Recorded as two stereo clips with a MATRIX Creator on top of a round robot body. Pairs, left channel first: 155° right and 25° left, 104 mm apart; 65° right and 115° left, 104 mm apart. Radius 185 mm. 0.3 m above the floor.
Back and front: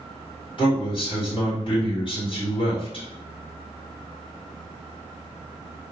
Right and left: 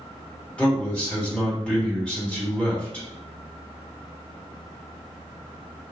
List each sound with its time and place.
0.6 s a man speaking: 145° right, 2.0 m